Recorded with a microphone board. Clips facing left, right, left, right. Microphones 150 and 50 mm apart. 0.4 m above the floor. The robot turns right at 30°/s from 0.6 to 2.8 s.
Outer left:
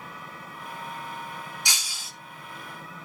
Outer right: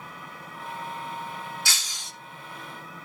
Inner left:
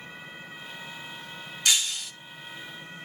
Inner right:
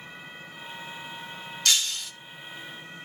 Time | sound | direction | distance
1.6 | breaking glass | 15° left (ahead or behind) | 0.8 m